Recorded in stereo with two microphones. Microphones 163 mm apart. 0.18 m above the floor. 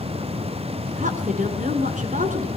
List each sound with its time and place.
1.0 s a woman speaking: 50° right (ahead or behind), 1.8 m